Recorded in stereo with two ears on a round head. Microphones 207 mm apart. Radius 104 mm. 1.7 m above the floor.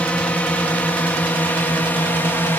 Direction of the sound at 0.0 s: 5° left (ahead or behind).